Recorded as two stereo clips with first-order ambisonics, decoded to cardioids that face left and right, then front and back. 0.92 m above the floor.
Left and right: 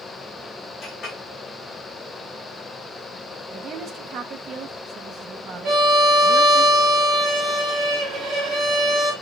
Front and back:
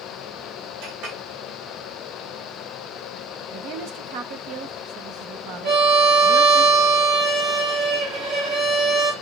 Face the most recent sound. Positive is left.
turn(degrees=-145)